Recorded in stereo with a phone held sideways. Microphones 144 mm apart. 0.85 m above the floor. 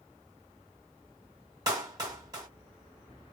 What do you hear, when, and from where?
1.7 s a clap: 25° right (ahead or behind), 1.6 m